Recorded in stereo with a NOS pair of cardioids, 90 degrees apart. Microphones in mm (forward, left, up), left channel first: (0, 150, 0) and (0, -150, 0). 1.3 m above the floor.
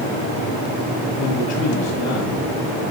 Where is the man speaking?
60° left, 4.5 m.